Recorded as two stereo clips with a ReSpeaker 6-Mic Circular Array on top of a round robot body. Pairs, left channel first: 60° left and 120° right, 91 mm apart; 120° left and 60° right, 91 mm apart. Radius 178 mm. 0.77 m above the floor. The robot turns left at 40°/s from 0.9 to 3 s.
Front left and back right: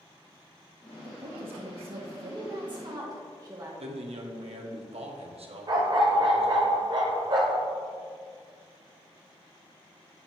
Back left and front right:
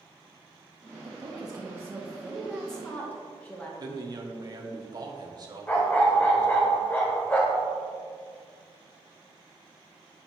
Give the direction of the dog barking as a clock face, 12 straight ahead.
6 o'clock.